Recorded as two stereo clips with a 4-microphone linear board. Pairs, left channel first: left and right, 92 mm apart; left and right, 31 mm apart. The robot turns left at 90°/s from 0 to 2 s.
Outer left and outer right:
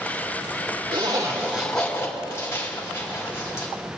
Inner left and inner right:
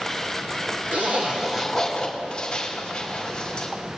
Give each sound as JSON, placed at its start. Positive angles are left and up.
{"t": 0.9, "sound": "a zipper", "side_deg": -65, "distance_m": 2.5}